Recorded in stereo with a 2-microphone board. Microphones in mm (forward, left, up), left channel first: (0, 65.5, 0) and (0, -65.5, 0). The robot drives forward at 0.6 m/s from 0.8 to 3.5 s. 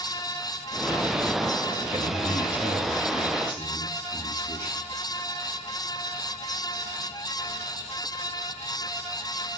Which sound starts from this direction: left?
A man speaking, at 1.9 s.